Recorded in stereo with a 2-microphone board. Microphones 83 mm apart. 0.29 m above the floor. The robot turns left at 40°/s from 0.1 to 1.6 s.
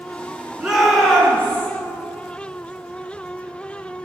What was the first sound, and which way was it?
A shout, 165° right.